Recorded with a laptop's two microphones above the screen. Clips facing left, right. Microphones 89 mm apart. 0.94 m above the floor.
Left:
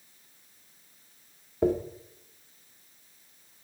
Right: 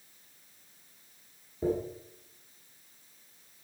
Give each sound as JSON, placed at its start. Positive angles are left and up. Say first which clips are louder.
{"t": 1.6, "sound": "a dropped coin", "louder": "left 5 dB", "side_deg": 65, "distance_m": 1.2}